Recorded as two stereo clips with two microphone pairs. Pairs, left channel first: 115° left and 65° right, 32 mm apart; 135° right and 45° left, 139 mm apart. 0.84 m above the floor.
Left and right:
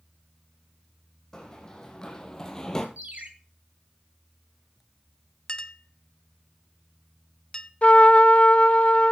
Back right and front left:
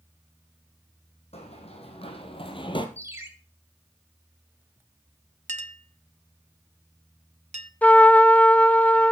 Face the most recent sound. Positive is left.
turn(degrees=145)